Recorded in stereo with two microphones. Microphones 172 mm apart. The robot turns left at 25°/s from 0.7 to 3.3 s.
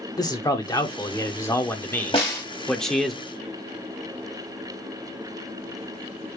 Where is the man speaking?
20° left (ahead or behind), 0.8 m; by 3.1 s centre (ahead or behind), 0.8 m.